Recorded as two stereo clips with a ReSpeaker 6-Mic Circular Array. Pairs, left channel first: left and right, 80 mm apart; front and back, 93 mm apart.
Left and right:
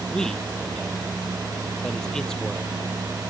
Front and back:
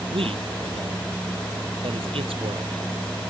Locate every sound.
0.1 s a man speaking: 170° left